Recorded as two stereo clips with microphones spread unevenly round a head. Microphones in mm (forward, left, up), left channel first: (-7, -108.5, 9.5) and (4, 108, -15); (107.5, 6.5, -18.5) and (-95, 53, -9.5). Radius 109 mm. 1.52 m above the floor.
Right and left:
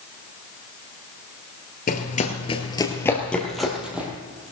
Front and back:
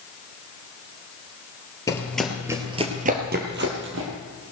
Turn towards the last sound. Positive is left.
turn(degrees=175)